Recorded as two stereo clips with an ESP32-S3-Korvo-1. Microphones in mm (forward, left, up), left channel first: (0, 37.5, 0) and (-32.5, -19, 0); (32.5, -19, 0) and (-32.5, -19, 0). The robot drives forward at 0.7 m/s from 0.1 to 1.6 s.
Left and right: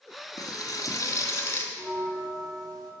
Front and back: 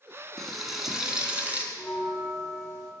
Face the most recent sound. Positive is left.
turn(degrees=-135)